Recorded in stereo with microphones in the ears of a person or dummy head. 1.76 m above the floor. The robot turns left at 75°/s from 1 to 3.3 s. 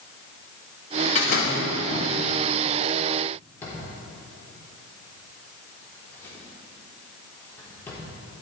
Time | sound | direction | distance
1.1 | a door slam | 130° left | 2 m
3.6 | a drawer | 15° left (ahead or behind) | 3.5 m